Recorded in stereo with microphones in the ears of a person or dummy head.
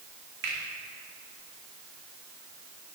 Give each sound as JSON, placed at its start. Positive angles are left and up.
{"t": 0.4, "sound": "a finger snap", "side_deg": -65, "distance_m": 2.5}